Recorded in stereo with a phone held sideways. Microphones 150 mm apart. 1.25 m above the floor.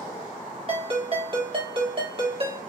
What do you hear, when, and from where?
0.7 s a ringtone: 40° right (ahead or behind), 1.4 m